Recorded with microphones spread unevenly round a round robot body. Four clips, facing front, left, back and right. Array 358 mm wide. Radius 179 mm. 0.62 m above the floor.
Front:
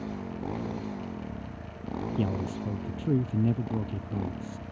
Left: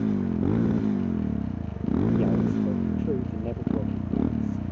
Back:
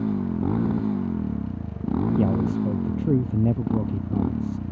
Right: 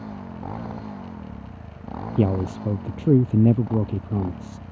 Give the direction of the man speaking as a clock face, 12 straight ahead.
3 o'clock.